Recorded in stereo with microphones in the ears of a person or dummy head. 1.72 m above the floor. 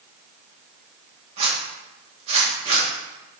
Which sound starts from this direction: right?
A zipper, at 1.4 s.